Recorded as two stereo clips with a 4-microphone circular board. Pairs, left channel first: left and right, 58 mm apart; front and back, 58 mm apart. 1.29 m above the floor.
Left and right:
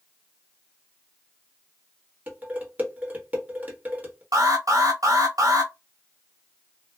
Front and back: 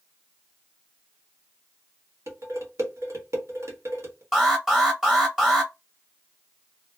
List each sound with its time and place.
2.3 s dishes clattering: 150° right, 1.2 m
4.3 s an alarm: 100° right, 1.3 m